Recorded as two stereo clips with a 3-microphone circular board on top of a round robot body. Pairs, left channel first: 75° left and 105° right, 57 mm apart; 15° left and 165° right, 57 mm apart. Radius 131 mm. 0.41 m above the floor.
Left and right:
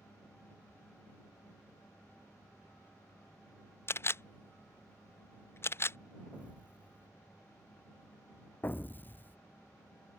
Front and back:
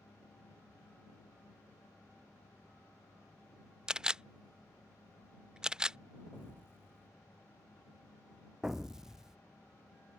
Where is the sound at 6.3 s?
35° right.